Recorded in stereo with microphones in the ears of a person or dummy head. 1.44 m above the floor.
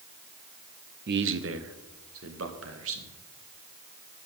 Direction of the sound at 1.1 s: 55° right (ahead or behind).